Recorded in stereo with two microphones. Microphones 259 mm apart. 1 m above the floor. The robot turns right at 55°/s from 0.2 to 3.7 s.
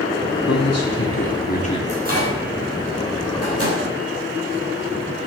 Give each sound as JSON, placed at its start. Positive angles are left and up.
{"t": 0.5, "sound": "a man speaking", "azimuth_deg": 85, "distance_m": 3.0}
{"t": 1.9, "sound": "a microwave", "side_deg": -25, "distance_m": 6.5}